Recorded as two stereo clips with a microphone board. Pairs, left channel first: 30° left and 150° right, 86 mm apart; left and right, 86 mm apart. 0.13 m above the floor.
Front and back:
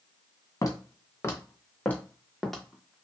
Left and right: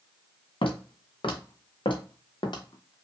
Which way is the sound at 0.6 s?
80° left.